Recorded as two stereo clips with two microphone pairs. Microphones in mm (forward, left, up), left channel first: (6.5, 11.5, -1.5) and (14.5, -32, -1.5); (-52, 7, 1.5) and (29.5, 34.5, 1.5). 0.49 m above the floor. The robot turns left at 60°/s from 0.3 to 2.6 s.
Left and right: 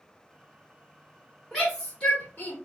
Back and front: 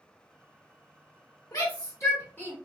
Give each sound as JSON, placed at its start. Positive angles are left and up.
{"t": 1.5, "sound": "a shout", "azimuth_deg": -170, "distance_m": 1.5}